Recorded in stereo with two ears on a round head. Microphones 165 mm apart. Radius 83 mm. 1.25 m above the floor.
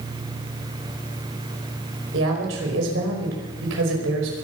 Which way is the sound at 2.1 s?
75° right (ahead or behind).